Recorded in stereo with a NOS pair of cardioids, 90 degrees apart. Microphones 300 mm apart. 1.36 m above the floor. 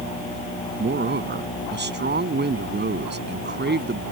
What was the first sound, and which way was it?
A man speaking, 35° right.